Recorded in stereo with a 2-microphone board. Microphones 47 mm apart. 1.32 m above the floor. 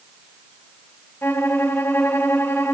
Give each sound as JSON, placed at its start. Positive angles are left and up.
{"t": 1.2, "sound": "a violin", "side_deg": 55, "distance_m": 4.0}